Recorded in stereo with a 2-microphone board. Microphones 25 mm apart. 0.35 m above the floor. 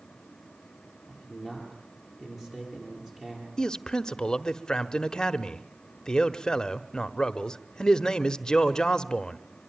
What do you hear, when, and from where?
1.1 s a man speaking: 20° right (ahead or behind), 9.5 m
3.6 s a man speaking: 25° left (ahead or behind), 0.9 m